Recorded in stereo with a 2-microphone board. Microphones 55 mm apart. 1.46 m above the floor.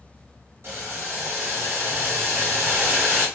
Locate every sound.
0.6 s boiling: 50° right (ahead or behind), 1.7 m